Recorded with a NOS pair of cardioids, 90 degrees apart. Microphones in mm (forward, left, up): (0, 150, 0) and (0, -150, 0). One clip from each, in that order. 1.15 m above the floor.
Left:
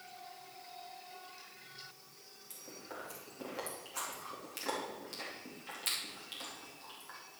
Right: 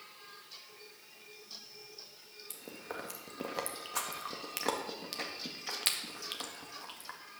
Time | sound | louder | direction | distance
2.5 | chewing | right 4 dB | 60° right | 2 m